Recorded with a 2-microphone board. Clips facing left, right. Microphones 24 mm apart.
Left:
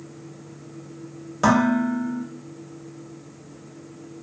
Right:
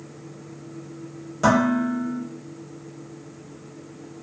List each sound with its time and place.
1.4 s dishes clattering: 10° left (ahead or behind), 1.2 m